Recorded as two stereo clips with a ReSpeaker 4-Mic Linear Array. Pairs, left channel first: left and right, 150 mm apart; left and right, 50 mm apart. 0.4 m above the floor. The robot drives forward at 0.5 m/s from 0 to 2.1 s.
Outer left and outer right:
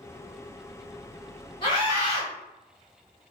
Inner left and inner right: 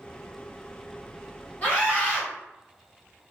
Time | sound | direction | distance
1.6 | a scream | 30° left (ahead or behind) | 1.5 m